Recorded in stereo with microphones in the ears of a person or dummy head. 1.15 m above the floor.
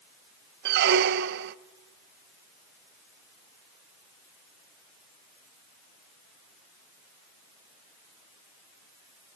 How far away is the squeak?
About 0.5 m.